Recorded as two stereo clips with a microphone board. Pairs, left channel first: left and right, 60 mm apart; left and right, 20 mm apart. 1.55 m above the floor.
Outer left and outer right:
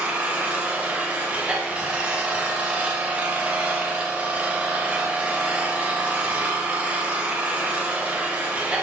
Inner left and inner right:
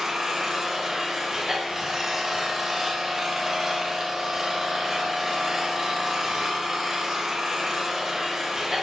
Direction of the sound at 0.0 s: 20° right (ahead or behind).